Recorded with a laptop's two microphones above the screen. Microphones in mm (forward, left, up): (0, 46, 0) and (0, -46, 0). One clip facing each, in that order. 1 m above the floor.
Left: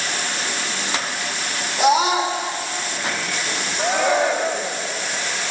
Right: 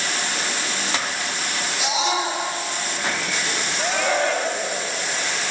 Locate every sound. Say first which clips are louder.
1.8 s a scream: left 8 dB; 55° left (ahead or behind), 4.5 m
3.8 s a shout: left 4 dB; 15° left (ahead or behind), 1.8 m